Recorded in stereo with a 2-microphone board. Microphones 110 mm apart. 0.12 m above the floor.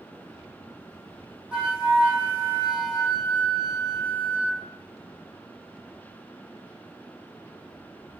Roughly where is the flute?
Centre.